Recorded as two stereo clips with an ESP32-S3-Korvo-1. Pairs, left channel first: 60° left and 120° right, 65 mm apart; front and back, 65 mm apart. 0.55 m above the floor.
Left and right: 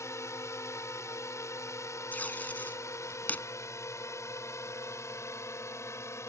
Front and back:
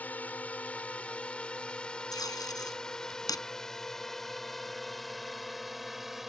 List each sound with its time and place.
0.0 s a drone: 55° left; by 6.3 s 95° left
2.1 s tape being pulled: 5° right